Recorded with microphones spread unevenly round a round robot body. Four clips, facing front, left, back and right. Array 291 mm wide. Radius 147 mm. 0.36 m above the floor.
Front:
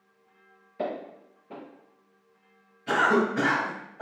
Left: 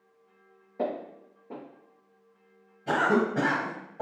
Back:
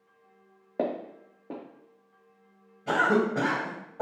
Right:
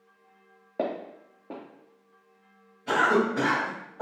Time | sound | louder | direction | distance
0.8 | footsteps | right 1 dB, back 2 dB | 155° right | 0.9 m
2.9 | a cough | right 1 dB, front 1 dB | 160° left | 1.8 m